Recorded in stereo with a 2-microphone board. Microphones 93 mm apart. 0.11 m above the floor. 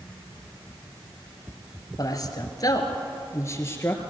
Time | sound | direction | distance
2.0 | a man speaking | 40° left (ahead or behind) | 2 m